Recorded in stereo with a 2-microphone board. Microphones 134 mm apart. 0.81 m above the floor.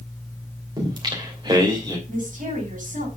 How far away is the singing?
About 2.5 m.